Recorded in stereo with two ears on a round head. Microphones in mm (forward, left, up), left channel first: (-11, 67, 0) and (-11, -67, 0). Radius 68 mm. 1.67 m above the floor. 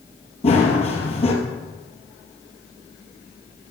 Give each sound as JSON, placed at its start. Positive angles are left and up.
{"t": 0.4, "sound": "running footsteps", "side_deg": 40, "distance_m": 3.0}